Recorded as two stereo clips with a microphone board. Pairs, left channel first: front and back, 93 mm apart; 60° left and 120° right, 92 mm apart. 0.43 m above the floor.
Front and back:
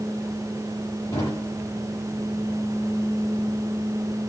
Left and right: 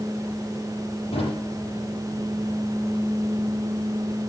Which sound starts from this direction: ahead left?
A drawer, at 1.1 s.